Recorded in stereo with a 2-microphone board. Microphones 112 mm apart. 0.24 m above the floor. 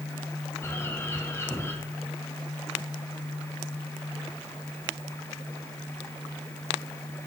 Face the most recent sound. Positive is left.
turn(degrees=20)  # may be behind; listen again after turning